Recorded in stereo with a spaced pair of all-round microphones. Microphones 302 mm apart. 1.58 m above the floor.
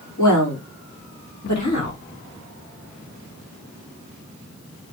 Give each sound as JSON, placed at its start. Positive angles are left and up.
{"t": 0.2, "sound": "a woman speaking", "side_deg": 75, "distance_m": 4.0}